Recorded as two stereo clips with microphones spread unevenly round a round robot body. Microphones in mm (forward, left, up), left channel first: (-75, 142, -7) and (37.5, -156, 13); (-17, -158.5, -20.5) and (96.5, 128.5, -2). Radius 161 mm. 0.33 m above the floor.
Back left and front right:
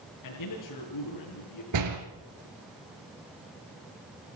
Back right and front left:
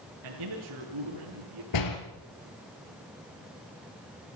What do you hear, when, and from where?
0.2 s a man speaking: 85° left, 5.5 m
1.7 s a door slam: 100° right, 3.5 m